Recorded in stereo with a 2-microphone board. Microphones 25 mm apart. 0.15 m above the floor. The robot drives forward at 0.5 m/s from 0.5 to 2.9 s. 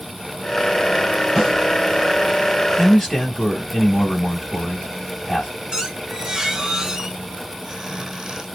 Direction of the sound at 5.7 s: 20° right (ahead or behind).